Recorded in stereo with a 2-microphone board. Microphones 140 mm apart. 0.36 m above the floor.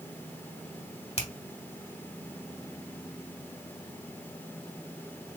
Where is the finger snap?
50° left (ahead or behind), 1.7 m.